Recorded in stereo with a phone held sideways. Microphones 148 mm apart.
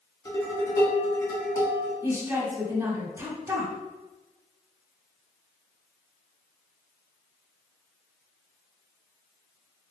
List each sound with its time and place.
0.2 s dishes clattering: 25° left (ahead or behind), 1.6 m
2.0 s a woman speaking: 20° right (ahead or behind), 1.4 m